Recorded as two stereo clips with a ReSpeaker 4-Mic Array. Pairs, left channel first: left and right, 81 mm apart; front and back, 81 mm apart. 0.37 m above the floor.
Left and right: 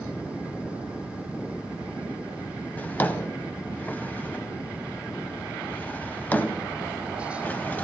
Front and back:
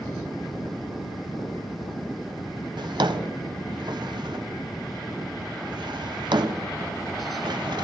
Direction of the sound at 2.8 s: 160° left.